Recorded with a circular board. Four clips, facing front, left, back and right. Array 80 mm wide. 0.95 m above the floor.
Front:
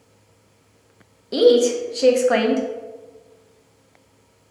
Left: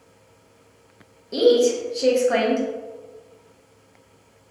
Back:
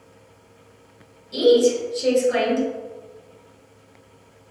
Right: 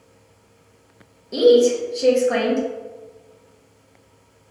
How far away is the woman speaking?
About 0.8 m.